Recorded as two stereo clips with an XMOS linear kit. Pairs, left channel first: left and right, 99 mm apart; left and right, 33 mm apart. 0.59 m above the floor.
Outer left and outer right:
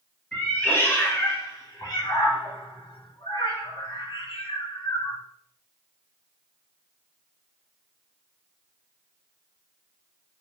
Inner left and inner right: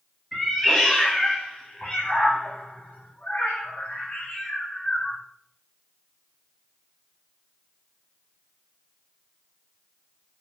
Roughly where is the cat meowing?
Centre.